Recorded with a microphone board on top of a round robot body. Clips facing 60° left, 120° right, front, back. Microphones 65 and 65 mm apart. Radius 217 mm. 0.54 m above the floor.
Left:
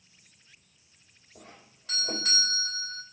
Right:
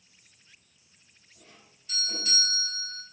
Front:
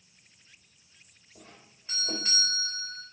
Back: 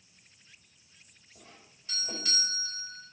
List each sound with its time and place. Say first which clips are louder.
1.4 s a doorbell: left 6 dB, front 3 dB; 55° left, 3 m